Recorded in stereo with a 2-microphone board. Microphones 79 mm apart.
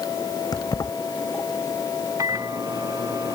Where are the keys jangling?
55° left (ahead or behind).